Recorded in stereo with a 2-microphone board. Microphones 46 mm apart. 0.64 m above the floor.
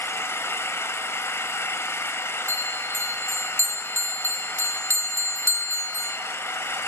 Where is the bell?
65° right (ahead or behind), 2.5 m.